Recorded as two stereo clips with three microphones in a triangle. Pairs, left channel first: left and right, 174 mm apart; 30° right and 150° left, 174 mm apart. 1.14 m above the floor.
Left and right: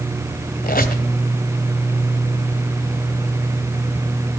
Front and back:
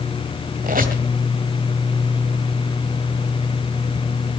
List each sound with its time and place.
0.6 s a squeak: 120° left, 2.0 m